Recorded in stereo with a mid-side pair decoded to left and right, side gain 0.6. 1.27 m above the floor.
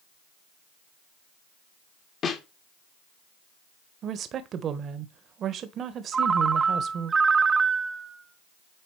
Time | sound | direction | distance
2.2 | a snare drum | 40° left | 1.7 m
4.0 | a woman speaking | 50° right | 1.3 m
6.1 | a ringtone | 25° right | 0.9 m